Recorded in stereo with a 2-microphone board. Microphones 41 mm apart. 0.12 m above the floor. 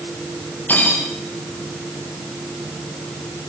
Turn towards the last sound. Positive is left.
turn(degrees=50)  # may be behind; listen again after turning